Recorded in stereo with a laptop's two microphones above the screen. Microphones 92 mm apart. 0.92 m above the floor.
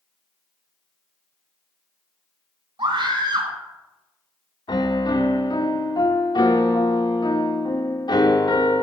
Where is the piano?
50° left (ahead or behind), 1.2 m.